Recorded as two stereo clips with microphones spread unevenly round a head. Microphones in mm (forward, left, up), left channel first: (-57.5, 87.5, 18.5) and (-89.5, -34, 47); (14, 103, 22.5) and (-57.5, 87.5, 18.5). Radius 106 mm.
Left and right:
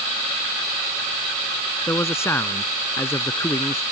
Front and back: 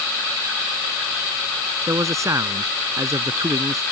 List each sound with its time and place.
1.9 s a man speaking: 145° left